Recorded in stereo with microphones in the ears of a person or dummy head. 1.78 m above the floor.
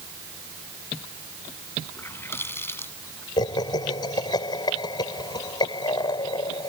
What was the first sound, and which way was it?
A running tap, 15° left (ahead or behind).